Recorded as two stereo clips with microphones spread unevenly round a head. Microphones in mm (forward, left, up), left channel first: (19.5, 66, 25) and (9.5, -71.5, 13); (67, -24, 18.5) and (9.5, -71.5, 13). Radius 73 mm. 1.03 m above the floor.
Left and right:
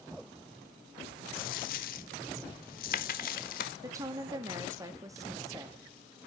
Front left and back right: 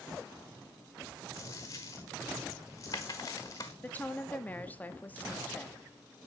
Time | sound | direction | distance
1.3 | a dropped coin | 100° left | 1.1 m
3.8 | a woman speaking | 30° right | 1.9 m